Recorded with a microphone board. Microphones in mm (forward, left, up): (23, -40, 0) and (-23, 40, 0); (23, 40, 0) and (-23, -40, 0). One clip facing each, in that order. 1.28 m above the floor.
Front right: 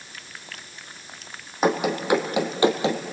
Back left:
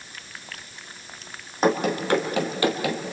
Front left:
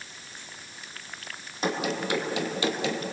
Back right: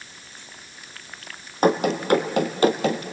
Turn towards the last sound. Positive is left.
turn(degrees=-105)